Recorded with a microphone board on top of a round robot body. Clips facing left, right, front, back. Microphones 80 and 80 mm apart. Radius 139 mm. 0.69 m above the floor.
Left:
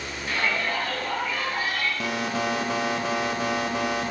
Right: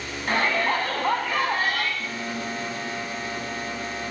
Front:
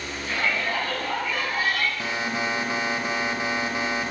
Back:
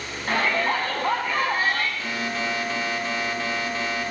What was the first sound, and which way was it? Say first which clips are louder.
A shout: right 4 dB, back 4 dB; 140° right.